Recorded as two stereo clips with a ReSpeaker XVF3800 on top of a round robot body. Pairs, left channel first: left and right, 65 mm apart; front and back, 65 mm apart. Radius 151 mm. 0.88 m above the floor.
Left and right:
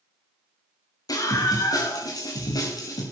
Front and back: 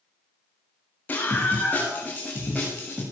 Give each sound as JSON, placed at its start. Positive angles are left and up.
{"t": 1.1, "sound": "a scream", "azimuth_deg": 70, "distance_m": 7.0}